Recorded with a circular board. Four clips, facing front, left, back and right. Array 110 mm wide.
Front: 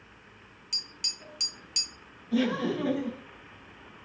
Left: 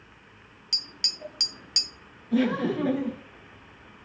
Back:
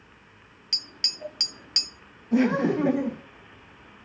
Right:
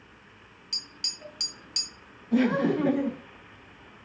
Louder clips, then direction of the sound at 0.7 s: Left 4 dB, back 6 dB; 155° left.